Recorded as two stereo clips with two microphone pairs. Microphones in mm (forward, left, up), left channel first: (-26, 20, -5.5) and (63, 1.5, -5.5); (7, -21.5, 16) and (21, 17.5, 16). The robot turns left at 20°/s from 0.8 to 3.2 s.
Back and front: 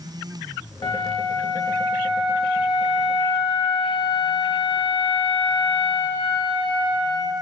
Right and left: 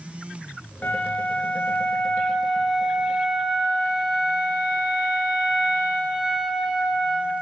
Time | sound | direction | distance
0.8 | a flute | 160° right | 2 m